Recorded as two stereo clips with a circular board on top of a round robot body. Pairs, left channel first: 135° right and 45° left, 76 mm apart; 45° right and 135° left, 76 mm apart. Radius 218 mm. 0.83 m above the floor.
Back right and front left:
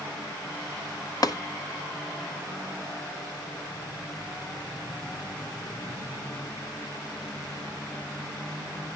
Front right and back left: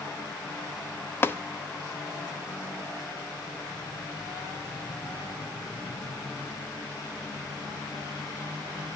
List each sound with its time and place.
1.2 s tapping: 105° right, 0.8 m